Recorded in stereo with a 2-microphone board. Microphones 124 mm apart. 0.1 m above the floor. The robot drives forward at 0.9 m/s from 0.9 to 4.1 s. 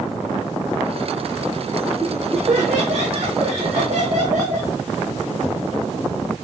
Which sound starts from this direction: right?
Laughter, at 2.0 s.